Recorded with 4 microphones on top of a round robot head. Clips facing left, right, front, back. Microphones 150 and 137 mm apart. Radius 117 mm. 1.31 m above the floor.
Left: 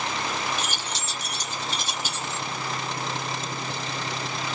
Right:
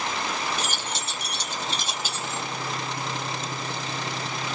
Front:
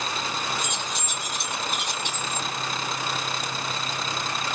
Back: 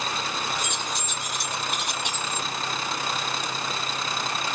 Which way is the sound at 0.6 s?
40° right.